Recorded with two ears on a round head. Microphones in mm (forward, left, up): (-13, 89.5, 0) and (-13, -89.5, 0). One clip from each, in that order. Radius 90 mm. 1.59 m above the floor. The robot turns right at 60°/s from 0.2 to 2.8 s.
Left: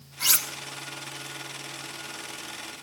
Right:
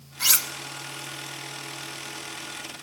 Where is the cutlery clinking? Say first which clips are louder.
Right 2 dB; 5° right (ahead or behind), 1.1 m; by 0.5 s 5° left (ahead or behind), 1.1 m.